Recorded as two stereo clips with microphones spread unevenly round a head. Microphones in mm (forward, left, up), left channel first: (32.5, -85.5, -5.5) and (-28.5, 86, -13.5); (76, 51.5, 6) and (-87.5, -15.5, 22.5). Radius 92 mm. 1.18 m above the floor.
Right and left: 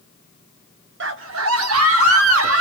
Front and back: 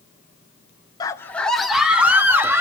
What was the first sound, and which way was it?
A scream, 90° left.